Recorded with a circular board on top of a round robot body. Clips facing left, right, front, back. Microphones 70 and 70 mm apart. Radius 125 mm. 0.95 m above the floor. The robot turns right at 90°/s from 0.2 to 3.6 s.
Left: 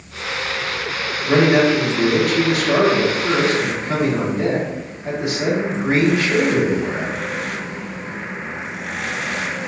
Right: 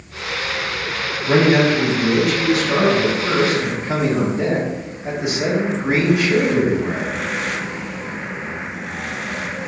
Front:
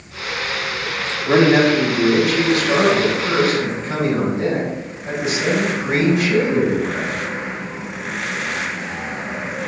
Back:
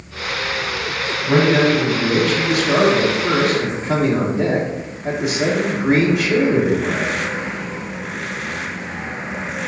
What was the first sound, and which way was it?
A man speaking, 15° right.